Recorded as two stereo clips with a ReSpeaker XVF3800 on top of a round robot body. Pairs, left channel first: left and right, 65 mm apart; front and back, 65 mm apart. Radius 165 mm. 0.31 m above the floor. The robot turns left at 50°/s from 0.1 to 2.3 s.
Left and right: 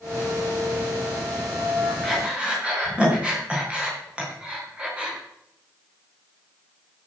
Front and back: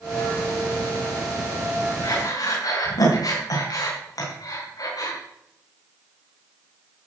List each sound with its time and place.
2.0 s breathing: 5° right, 4.5 m; by 5.2 s 15° right, 4.5 m